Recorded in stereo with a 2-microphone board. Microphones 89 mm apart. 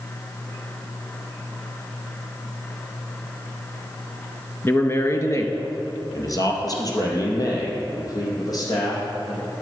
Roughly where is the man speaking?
Left.